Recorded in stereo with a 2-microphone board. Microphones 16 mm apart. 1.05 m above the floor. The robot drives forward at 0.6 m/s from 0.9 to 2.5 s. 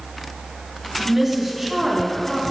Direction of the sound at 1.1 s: 10° right (ahead or behind).